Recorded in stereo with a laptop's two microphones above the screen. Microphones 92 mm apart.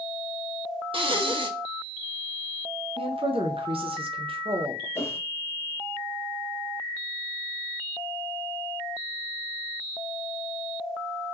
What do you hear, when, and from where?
0.9 s breathing: 75° right (ahead or behind), 0.6 m
3.0 s a woman speaking: 85° right, 0.7 m
5.0 s a whoosh: 30° left (ahead or behind), 0.5 m